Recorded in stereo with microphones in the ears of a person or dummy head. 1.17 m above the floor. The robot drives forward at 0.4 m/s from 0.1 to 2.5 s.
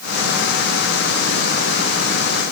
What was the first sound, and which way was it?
Only background noise.